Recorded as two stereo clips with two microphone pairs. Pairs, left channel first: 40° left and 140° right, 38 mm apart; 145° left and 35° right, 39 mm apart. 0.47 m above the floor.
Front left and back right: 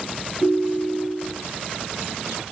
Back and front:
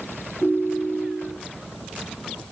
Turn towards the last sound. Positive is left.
turn(degrees=85)